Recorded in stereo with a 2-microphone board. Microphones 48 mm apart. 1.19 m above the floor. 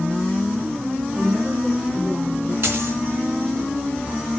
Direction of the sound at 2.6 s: 60° right (ahead or behind).